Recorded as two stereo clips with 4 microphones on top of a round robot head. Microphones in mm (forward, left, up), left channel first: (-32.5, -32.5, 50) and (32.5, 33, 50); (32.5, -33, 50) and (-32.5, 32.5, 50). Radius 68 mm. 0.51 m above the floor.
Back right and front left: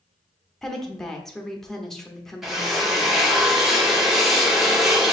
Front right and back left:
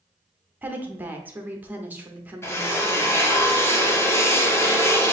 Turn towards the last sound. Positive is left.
turn(degrees=-35)